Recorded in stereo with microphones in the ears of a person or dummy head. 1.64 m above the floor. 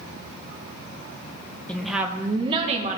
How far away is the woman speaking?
About 1.1 m.